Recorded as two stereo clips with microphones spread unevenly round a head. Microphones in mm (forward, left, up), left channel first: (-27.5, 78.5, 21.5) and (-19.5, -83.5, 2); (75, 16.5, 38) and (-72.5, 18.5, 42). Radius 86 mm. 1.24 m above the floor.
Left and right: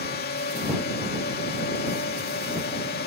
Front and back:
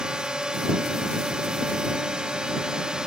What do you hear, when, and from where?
0.0 s a drone: 95° left